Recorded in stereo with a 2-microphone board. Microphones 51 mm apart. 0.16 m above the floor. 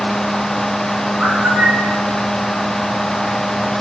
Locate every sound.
1.2 s a bird: 25° right (ahead or behind), 2.5 m